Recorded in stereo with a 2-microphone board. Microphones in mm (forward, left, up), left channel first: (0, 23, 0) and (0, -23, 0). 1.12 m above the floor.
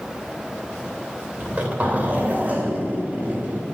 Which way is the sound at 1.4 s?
30° right (ahead or behind).